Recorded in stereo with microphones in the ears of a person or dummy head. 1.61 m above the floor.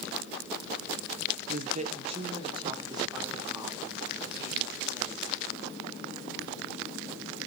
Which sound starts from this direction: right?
A woman speaking, at 1.5 s.